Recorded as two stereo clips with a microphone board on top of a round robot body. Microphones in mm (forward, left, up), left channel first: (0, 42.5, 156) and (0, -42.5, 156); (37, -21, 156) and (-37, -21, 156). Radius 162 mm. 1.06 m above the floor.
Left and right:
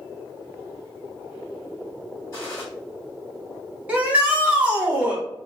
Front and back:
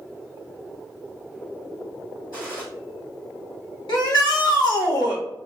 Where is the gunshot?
35° left, 1.4 m.